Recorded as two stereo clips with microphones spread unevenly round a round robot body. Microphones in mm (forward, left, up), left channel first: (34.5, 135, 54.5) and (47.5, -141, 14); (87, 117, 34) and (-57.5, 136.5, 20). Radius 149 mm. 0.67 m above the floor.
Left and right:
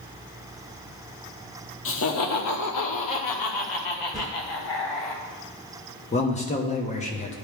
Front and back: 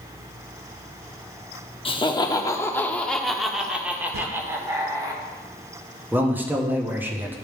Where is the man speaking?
135° left, 0.9 m.